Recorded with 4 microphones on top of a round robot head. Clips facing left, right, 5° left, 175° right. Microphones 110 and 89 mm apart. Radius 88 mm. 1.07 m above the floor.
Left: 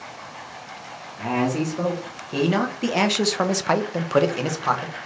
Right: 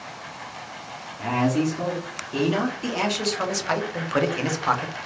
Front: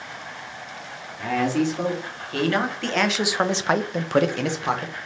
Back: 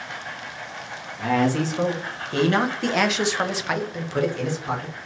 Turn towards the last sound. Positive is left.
turn(degrees=5)